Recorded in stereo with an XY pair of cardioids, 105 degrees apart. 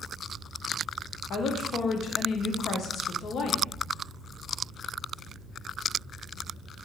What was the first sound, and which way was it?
A woman speaking, 60° left.